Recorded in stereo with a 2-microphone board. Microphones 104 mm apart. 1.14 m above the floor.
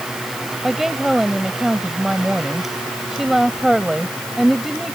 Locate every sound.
0.6 s a woman speaking: centre (ahead or behind)